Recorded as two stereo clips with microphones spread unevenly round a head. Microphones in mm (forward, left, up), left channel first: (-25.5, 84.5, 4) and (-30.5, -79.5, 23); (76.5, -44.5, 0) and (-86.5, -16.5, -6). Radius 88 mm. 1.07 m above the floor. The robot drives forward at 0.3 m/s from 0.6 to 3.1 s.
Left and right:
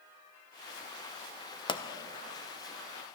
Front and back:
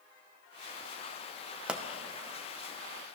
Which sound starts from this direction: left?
A pop, at 1.7 s.